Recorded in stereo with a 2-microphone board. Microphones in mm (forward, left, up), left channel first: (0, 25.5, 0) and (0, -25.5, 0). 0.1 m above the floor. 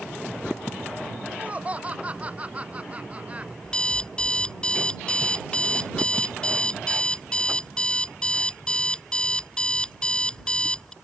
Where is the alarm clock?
20° left (ahead or behind).